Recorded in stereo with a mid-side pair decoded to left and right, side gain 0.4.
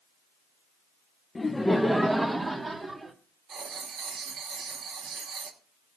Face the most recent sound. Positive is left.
turn(degrees=-70)